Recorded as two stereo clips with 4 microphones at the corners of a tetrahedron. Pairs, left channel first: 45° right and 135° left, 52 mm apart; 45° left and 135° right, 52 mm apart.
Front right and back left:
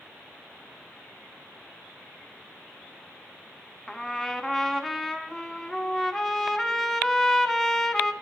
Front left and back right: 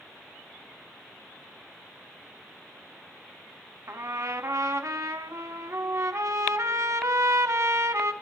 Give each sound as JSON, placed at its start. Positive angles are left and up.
{"t": 3.9, "sound": "a trumpet", "azimuth_deg": -125, "distance_m": 0.7}